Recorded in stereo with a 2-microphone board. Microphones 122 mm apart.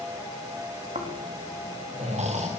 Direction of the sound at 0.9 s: 70° right (ahead or behind).